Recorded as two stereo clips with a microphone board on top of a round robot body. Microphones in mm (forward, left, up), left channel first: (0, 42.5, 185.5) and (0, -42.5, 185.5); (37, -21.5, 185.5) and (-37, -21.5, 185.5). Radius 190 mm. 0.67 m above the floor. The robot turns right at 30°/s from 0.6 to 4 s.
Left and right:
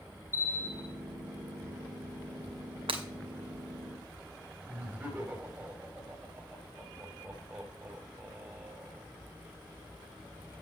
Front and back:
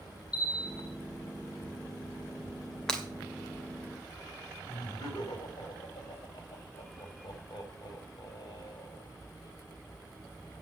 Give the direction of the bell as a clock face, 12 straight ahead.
11 o'clock.